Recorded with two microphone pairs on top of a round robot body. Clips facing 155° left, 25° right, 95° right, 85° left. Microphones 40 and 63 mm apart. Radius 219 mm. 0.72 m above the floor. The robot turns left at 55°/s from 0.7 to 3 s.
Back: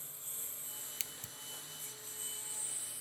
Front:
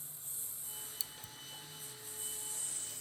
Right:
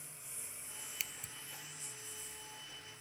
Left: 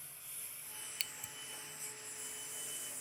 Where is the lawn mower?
165° right; by 3.0 s 75° left.